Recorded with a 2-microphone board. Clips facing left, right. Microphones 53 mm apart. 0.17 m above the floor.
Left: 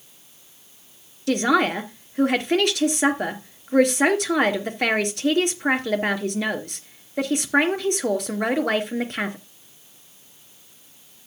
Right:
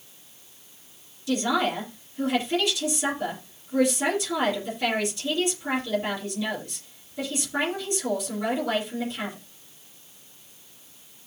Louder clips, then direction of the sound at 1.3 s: Left 5 dB; 65° left (ahead or behind).